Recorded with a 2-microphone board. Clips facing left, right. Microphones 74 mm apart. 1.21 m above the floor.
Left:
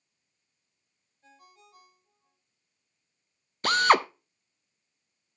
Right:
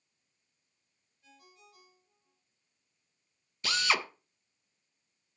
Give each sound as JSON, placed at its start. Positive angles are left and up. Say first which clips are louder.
{"t": 1.2, "sound": "a ringtone", "louder": "left 3 dB", "side_deg": 40, "distance_m": 3.0}
{"t": 3.6, "sound": "a drill", "louder": "left 10 dB", "side_deg": 50, "distance_m": 0.5}